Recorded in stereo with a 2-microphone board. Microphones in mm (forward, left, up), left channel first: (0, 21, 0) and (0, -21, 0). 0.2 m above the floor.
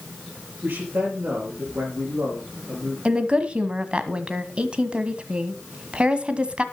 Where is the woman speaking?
25° right (ahead or behind), 1.3 m.